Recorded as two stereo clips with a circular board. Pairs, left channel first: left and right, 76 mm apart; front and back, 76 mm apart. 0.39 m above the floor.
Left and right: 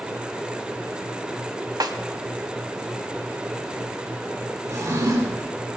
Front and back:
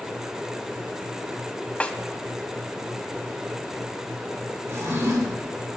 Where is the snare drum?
70° right, 1.0 m.